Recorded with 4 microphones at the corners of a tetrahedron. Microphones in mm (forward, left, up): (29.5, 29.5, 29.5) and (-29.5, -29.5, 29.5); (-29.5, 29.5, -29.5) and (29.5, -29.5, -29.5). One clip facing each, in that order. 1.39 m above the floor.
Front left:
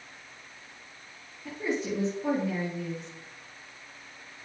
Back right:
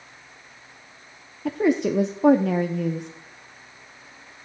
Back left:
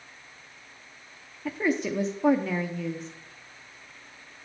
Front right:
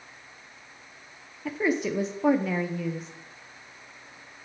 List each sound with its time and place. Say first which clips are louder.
1.4 s a woman speaking: back right 10 dB, front right 1 dB; 130° right, 0.6 m